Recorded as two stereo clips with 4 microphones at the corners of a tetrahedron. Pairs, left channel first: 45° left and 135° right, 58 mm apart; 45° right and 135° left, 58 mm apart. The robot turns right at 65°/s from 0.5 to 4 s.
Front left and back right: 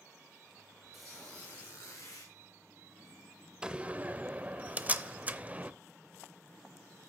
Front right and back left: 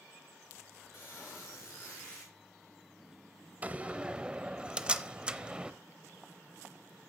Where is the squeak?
45° right, 5 m; by 2.3 s 45° left, 5 m.